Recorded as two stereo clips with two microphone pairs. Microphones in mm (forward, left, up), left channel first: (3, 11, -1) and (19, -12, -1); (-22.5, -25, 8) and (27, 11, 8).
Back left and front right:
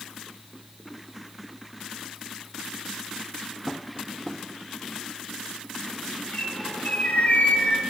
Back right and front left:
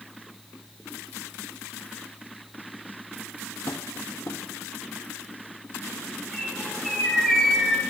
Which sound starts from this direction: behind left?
A bird, at 6.3 s.